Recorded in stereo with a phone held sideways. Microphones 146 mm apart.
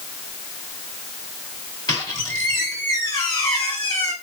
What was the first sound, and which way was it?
A squeak, 30° left (ahead or behind).